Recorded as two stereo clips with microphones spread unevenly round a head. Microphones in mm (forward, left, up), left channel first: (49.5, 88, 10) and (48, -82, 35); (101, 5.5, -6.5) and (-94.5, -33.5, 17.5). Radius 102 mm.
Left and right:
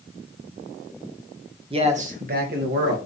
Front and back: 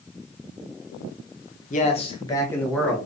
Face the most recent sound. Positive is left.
turn(degrees=-75)